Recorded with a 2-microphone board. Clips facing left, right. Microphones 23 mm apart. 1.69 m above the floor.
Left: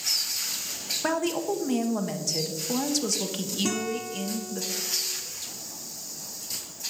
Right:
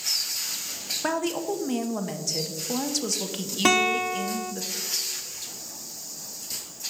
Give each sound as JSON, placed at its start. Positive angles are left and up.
{"t": 1.0, "sound": "a woman speaking", "side_deg": 0, "distance_m": 0.9}
{"t": 3.6, "sound": "a guitar", "side_deg": -70, "distance_m": 0.6}